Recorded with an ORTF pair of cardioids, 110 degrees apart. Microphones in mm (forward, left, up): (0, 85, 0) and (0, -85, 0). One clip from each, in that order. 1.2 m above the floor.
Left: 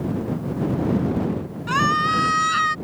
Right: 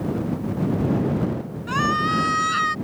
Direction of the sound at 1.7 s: 25° left.